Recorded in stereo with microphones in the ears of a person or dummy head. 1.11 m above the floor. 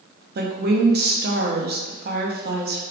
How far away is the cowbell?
No cowbell in this recording.